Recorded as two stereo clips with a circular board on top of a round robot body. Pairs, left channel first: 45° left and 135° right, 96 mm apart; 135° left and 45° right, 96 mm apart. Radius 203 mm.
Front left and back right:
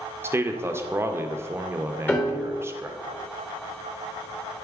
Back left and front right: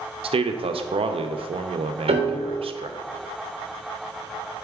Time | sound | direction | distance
0.2 | a man speaking | 70° right | 0.5 m
2.1 | a piano | 25° right | 0.7 m